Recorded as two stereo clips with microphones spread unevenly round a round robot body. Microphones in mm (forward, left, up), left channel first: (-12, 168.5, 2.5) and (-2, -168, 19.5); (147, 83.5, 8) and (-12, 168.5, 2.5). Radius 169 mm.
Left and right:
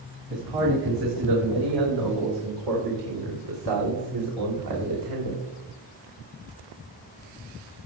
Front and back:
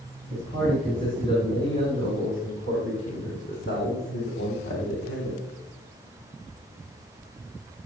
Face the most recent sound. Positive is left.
turn(degrees=-65)